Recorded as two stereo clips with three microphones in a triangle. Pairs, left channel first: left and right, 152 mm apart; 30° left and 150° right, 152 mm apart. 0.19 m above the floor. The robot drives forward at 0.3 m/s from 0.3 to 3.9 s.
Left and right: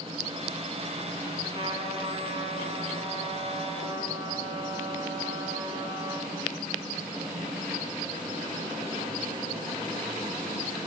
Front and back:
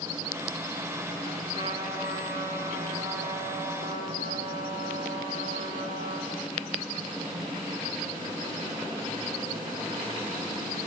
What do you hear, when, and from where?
1.5 s a trumpet: 125° right, 1.9 m; by 6.3 s 145° right, 2.5 m